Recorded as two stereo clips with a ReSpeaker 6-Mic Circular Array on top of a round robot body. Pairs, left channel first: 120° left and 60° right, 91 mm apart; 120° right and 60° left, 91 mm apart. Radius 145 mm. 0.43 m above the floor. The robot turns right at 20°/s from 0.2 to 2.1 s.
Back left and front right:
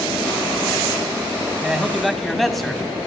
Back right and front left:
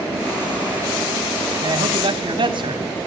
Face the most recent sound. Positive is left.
turn(degrees=30)